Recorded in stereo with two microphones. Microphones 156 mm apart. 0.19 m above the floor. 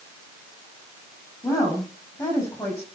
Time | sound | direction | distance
1.4 | a woman speaking | 20° left (ahead or behind) | 8.5 m